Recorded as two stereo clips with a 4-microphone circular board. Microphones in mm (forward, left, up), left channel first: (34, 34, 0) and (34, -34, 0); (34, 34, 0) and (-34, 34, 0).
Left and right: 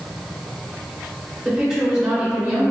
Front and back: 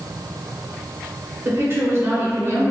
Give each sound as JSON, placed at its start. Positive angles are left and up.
{"t": 1.4, "sound": "a woman speaking", "azimuth_deg": -165, "distance_m": 1.1}